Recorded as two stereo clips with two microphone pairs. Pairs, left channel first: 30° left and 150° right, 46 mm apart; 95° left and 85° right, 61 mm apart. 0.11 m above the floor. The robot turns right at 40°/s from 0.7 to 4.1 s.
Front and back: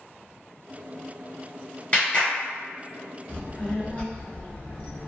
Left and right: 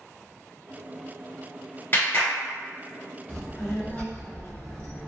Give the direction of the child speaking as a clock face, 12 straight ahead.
11 o'clock.